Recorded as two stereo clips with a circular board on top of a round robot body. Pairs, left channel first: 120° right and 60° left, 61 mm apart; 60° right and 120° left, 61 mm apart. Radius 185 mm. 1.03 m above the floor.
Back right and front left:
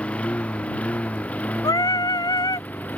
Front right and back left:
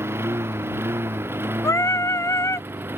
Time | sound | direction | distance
0.0 | a lawn mower | 170° left | ?
1.6 | singing | 105° right | ?